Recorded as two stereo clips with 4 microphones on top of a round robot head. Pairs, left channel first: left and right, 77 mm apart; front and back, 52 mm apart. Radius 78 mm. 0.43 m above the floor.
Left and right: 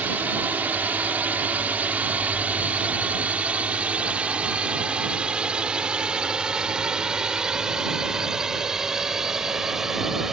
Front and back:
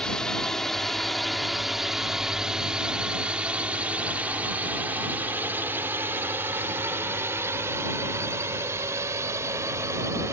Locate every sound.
0.0 s a drone: 60° right; by 10.3 s 175° right